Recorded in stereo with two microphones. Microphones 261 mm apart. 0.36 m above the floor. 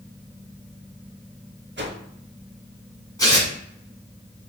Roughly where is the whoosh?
Right.